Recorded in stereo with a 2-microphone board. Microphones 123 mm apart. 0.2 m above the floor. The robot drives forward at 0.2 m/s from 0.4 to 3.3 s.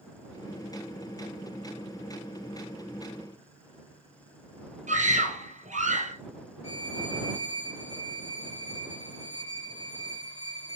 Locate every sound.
4.9 s a scream: 70° right (ahead or behind), 3 m
6.6 s a violin: 55° left (ahead or behind), 1.0 m